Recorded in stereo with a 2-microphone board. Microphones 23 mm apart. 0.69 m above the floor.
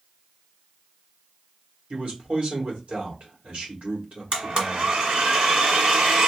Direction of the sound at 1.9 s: 70° right (ahead or behind).